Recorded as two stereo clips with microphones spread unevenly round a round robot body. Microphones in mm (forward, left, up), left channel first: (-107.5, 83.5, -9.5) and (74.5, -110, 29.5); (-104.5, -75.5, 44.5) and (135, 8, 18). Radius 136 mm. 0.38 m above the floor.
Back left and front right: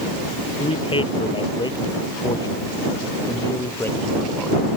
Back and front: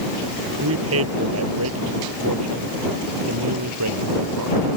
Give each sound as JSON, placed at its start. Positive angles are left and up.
{"t": 0.6, "sound": "a man speaking", "azimuth_deg": 60}